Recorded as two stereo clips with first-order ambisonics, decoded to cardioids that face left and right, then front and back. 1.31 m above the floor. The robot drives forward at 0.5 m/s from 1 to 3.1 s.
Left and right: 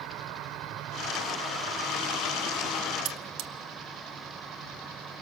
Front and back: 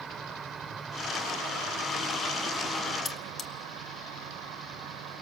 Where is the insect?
115° right, 1.0 m; by 5.2 s 150° right, 1.7 m.